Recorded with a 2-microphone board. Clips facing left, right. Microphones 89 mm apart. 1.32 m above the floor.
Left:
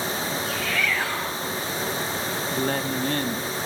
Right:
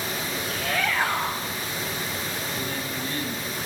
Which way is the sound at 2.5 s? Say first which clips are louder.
Left 6 dB; 55° left (ahead or behind).